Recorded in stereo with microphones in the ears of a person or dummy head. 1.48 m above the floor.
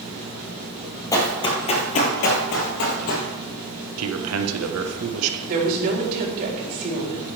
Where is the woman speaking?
50° right (ahead or behind), 4.5 m.